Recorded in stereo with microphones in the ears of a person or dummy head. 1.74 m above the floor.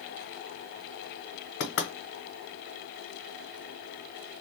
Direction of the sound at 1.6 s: 60° left (ahead or behind).